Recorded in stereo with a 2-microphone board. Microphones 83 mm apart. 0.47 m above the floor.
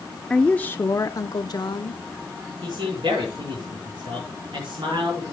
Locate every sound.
0.3 s a woman speaking: 5° left (ahead or behind), 0.7 m; by 2.0 s 60° left (ahead or behind), 1.4 m
2.6 s a man speaking: 80° right, 5.5 m